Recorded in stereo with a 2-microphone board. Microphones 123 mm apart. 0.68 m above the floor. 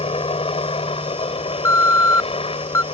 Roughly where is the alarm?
Left.